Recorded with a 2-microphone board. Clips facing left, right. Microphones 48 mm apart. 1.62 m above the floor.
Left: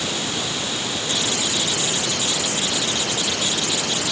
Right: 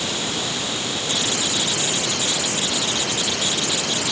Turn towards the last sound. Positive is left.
No sound to turn to.